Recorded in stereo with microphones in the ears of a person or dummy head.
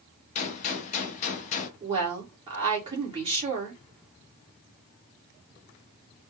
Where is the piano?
I don't hear a piano.